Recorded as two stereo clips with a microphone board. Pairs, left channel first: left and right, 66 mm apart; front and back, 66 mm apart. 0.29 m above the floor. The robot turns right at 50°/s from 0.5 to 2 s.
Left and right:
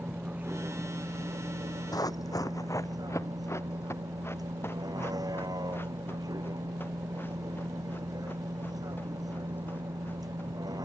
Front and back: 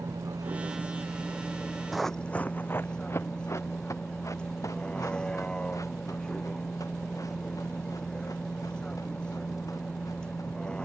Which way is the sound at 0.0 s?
155° right.